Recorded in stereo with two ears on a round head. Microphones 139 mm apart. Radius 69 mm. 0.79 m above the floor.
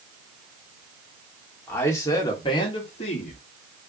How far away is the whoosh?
No whoosh in this recording.